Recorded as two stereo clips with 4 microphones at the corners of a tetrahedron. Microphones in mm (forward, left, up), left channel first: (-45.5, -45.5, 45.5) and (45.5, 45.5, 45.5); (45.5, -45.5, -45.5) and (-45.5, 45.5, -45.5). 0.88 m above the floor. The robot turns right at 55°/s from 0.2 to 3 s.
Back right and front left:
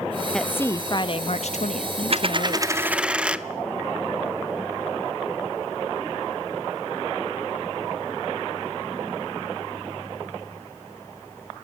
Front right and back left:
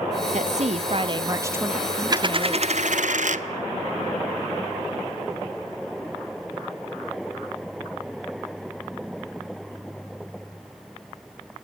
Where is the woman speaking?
140° left, 0.8 m; by 2.8 s 85° right, 0.8 m.